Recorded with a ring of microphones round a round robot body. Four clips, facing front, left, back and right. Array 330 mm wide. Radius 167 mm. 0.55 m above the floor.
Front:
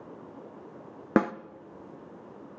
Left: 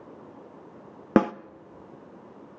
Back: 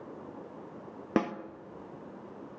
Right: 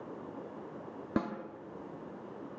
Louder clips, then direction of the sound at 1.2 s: Left 13 dB, front 5 dB; 75° left.